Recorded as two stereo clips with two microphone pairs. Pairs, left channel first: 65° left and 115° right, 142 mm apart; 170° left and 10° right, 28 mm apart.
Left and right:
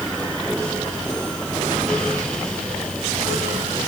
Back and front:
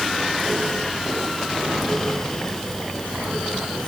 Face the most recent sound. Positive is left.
No sound to turn to.